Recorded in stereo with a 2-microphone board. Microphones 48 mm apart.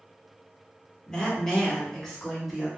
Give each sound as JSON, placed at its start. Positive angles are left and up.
{"t": 1.1, "sound": "a woman speaking", "side_deg": 15, "distance_m": 1.2}